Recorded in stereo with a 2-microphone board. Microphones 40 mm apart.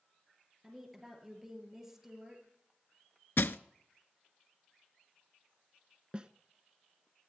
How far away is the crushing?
About 0.5 m.